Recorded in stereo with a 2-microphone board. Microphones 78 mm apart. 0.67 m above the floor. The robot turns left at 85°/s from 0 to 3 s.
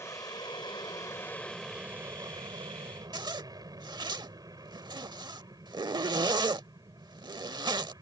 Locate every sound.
0.0 s an aircraft: 140° left; by 8.0 s 115° right
3.1 s a zipper: 70° right (ahead or behind)